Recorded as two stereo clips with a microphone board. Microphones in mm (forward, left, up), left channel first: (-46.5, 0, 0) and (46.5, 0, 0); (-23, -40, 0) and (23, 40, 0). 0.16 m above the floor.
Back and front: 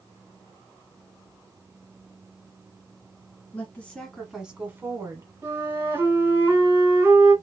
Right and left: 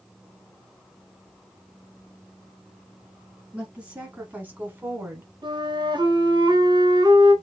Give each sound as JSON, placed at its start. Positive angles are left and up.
{"t": 3.5, "sound": "a woman speaking", "azimuth_deg": 130, "distance_m": 1.2}
{"t": 5.4, "sound": "a flute", "azimuth_deg": 55, "distance_m": 1.1}